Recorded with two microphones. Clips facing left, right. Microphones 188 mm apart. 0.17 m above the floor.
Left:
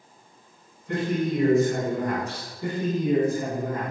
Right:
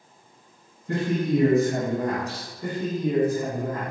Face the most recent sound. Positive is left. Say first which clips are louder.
# left 1 dB
turn(degrees=20)  # may be behind; listen again after turning